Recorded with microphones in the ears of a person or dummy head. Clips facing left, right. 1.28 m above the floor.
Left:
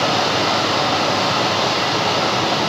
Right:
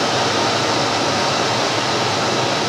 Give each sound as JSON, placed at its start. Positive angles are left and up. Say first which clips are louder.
{"t": 0.0, "sound": "a machine running", "louder": "even", "side_deg": -20, "distance_m": 2.5}